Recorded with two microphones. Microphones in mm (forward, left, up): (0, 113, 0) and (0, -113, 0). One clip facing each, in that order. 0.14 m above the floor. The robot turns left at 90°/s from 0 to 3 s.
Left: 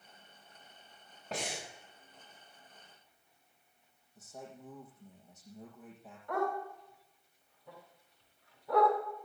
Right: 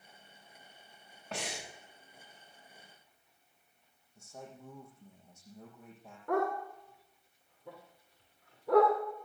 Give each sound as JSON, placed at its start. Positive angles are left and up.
{"t": 1.3, "sound": "breathing", "azimuth_deg": 145, "distance_m": 6.0}
{"t": 4.2, "sound": "a man speaking", "side_deg": 0, "distance_m": 7.0}
{"t": 6.3, "sound": "a dog barking", "side_deg": -80, "distance_m": 6.0}